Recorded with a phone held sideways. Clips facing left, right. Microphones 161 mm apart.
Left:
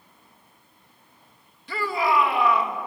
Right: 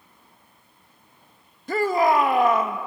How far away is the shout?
About 1.1 m.